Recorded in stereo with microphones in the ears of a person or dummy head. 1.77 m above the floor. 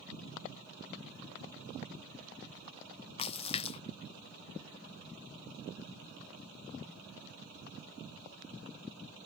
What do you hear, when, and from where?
3.2 s a splash: 35° left (ahead or behind)